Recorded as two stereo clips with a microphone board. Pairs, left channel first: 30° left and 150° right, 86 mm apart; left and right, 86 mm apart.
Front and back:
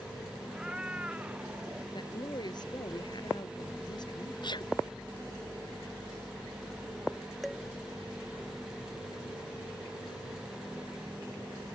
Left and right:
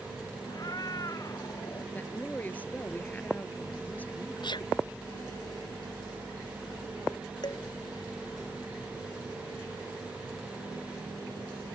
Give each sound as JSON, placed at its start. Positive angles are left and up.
{"t": 0.5, "sound": "a cat meowing", "azimuth_deg": 130}
{"t": 1.9, "sound": "a woman speaking", "azimuth_deg": 25}
{"t": 4.4, "sound": "a sneeze", "azimuth_deg": 60}
{"t": 7.4, "sound": "dishes clattering", "azimuth_deg": 120}